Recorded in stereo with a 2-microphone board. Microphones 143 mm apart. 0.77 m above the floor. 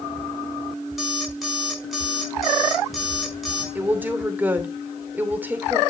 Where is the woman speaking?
15° right (ahead or behind), 2.5 m.